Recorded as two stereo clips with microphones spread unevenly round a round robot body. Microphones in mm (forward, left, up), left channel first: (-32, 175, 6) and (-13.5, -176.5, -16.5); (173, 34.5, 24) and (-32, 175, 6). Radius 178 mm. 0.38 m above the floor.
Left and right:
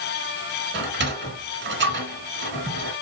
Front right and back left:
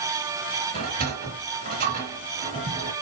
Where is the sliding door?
150° right, 2.5 m.